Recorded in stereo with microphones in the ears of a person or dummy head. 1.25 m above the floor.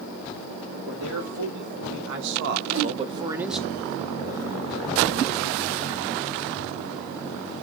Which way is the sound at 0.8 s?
85° right.